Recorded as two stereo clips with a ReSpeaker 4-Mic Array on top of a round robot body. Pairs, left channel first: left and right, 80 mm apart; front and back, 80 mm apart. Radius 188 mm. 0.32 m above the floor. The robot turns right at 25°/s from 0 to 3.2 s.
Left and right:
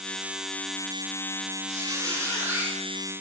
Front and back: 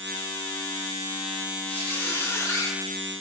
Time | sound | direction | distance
1.7 | a squeak | 60° right | 1.1 m